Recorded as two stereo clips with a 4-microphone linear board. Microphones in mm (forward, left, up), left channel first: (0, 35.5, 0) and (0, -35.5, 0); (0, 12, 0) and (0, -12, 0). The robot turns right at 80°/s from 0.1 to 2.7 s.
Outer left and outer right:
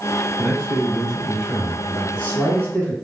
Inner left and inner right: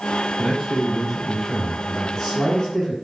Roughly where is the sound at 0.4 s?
Ahead right.